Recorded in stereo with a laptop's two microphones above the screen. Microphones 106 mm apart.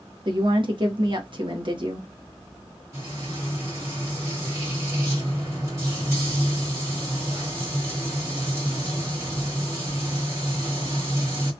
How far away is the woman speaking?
About 0.9 m.